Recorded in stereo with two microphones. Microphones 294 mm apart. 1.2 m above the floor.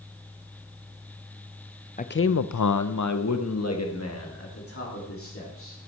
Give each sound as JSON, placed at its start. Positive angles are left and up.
{"t": 2.0, "sound": "a man speaking", "side_deg": 25, "distance_m": 0.5}